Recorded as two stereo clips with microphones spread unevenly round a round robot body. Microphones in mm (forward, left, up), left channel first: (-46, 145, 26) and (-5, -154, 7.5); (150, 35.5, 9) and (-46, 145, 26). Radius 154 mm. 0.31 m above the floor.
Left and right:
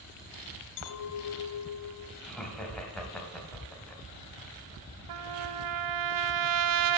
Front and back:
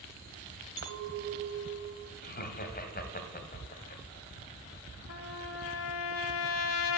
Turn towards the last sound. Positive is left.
turn(degrees=-60)